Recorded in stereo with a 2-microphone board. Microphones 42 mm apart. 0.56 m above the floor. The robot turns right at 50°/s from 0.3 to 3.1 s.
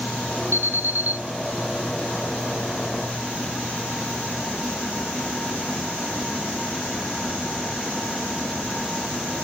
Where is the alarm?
80° right, 3 m; by 1.2 s 45° right, 3 m.